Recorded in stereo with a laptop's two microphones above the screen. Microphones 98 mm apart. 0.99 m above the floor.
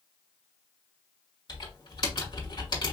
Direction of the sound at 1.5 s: 50° left (ahead or behind).